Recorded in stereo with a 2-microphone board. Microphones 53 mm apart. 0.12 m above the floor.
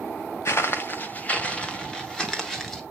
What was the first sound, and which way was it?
Footsteps, 60° left (ahead or behind).